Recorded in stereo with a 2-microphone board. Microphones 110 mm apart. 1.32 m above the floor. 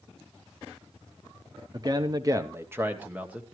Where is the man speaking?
35° right (ahead or behind), 0.6 m; by 3.5 s 10° right (ahead or behind), 1.5 m.